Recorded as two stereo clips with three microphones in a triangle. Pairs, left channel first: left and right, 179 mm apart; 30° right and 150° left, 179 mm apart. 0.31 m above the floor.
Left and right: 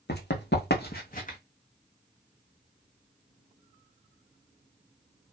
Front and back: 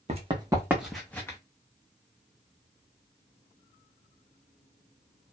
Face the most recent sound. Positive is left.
turn(degrees=45)